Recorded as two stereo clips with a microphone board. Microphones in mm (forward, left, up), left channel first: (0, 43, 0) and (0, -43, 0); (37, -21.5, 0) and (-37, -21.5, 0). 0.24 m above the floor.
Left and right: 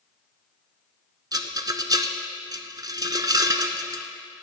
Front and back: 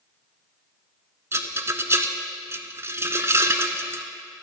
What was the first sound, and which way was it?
A rattle, 130° right.